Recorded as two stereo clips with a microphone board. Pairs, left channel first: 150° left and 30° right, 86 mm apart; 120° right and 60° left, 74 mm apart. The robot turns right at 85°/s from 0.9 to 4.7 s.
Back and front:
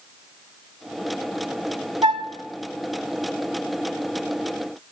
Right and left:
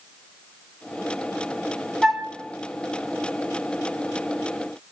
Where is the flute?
35° right, 0.7 m; by 2.3 s 10° right, 0.7 m.